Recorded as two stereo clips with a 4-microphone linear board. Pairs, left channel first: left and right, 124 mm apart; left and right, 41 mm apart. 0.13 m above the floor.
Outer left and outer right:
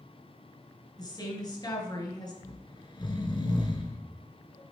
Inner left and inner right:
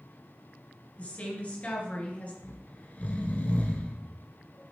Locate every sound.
1.0 s a woman speaking: 35° left (ahead or behind), 2 m
2.4 s snoring: 40° left (ahead or behind), 1.2 m